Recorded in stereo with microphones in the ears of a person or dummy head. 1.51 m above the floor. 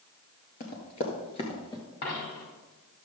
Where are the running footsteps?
40° left (ahead or behind), 1.9 m; by 1.8 s 15° left (ahead or behind), 1.8 m.